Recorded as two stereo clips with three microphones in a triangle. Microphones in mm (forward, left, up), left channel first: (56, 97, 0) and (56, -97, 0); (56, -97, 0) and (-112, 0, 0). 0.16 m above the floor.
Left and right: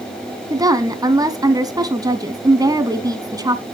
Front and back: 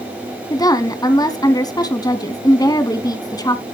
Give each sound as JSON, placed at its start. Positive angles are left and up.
{"t": 0.5, "sound": "a woman speaking", "azimuth_deg": -60, "distance_m": 1.1}